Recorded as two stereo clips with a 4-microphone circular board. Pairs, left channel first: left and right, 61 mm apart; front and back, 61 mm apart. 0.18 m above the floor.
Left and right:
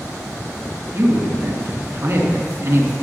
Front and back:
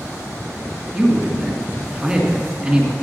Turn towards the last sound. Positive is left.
turn(degrees=-115)